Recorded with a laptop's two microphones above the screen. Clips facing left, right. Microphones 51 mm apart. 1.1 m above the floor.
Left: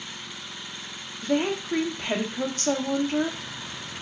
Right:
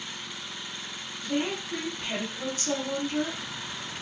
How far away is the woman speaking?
About 0.7 m.